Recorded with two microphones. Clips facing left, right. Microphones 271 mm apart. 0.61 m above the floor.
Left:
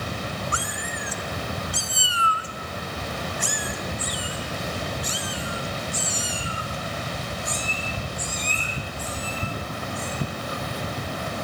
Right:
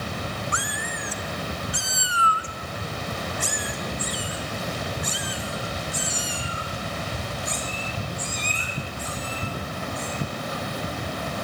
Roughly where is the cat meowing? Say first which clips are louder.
Even; left.